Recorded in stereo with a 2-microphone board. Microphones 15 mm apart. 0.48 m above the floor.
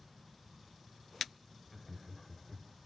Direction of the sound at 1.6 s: 10° left (ahead or behind).